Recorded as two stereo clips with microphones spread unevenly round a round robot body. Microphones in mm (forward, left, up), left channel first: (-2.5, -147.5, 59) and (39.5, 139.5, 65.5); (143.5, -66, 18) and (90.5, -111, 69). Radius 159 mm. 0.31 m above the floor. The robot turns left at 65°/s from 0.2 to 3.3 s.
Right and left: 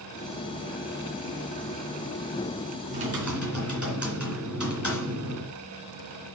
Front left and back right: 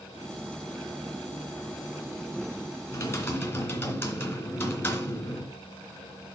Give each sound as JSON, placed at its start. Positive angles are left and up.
{"t": 2.9, "sound": "typing on a keyboard", "azimuth_deg": 20, "distance_m": 3.0}